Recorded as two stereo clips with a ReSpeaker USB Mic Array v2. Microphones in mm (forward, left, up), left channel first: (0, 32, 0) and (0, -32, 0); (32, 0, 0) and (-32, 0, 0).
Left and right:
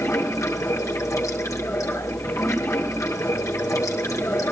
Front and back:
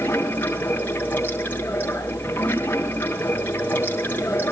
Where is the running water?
60° left, 5.5 m.